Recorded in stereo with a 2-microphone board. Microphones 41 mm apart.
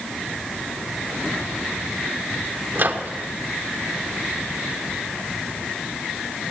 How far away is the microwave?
About 1.3 m.